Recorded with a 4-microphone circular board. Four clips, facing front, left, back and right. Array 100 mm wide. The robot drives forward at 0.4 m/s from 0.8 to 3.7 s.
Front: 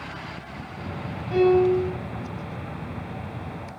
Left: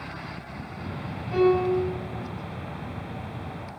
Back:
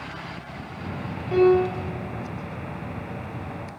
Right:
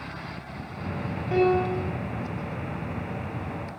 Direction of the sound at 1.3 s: 115° right.